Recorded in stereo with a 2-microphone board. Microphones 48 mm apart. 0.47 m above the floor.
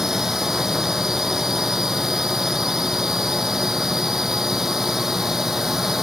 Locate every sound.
0.0 s a drone: 10° right (ahead or behind)